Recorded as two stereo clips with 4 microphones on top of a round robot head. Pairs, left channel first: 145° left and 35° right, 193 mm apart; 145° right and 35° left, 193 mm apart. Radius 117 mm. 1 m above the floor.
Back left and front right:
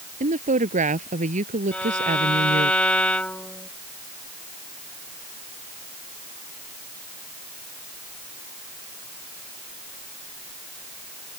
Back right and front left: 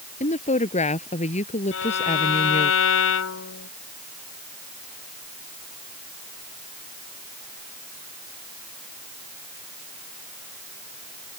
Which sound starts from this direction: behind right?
A violin, at 1.7 s.